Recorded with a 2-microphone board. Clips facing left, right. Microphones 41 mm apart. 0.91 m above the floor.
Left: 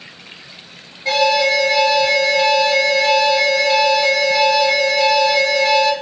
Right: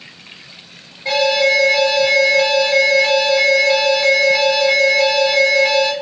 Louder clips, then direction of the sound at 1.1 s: Even; 5° right (ahead or behind).